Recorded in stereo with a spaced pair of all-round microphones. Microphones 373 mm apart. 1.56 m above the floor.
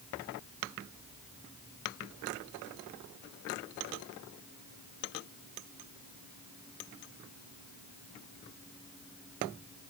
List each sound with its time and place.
Only background noise.